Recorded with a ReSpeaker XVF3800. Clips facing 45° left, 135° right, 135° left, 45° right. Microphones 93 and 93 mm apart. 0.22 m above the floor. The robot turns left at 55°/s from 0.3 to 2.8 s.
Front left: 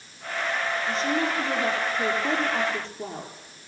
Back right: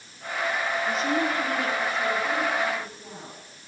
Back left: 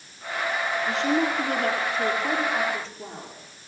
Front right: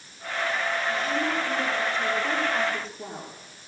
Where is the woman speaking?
145° left, 5.5 m; by 3.3 s 40° left, 5.5 m.